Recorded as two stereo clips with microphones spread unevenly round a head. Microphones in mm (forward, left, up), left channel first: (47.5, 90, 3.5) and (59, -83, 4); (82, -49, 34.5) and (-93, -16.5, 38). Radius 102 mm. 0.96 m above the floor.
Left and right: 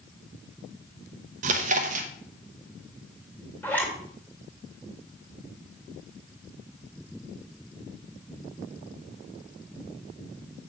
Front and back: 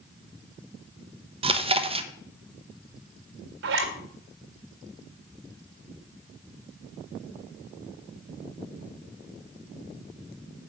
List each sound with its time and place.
1.4 s chewing: 135° right, 0.9 m
3.6 s a zipper: 175° left, 1.8 m